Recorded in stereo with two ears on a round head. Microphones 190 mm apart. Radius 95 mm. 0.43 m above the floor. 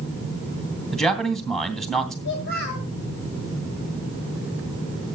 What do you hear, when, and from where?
0.9 s a man speaking: 5° left (ahead or behind), 3 m
2.2 s a child speaking: 60° left (ahead or behind), 2.5 m